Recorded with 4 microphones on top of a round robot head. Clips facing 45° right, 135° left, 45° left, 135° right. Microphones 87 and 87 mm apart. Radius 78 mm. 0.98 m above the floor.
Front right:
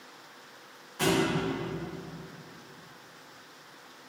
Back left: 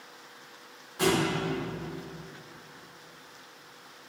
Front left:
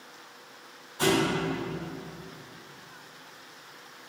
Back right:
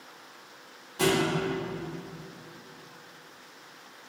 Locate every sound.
1.0 s a thud: 140° right, 1.2 m